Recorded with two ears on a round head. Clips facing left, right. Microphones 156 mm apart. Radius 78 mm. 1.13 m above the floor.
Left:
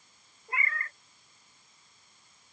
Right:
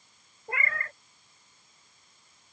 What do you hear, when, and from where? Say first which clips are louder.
0.5 s a cat meowing: right 2 dB; 50° right (ahead or behind)